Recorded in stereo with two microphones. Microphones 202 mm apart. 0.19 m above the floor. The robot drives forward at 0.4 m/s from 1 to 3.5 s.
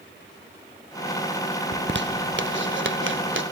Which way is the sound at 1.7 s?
60° right (ahead or behind).